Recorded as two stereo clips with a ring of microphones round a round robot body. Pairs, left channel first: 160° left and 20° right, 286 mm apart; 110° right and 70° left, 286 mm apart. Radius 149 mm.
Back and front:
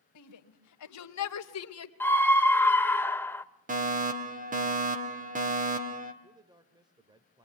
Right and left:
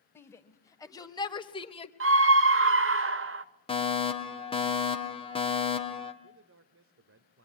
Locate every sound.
0.1 s a shout: 165° left, 2.5 m; by 1.9 s straight behind, 1.6 m
2.0 s a scream: 80° left, 1.1 m
3.7 s a fire alarm: 55° right, 2 m
6.2 s a man speaking: 50° left, 1.7 m